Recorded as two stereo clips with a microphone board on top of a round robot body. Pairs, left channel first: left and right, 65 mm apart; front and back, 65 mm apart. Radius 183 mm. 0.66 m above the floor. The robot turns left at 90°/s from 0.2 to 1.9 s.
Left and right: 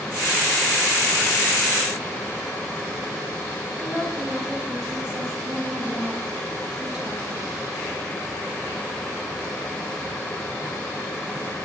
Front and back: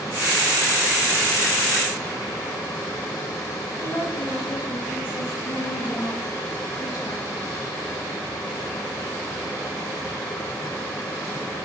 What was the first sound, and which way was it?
A woman speaking, 15° right.